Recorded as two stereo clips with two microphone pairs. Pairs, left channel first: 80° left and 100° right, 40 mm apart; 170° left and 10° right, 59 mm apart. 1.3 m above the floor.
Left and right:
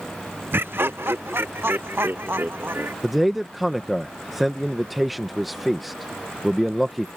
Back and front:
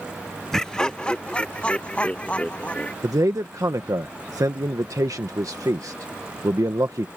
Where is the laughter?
110° right; by 2.9 s 125° right.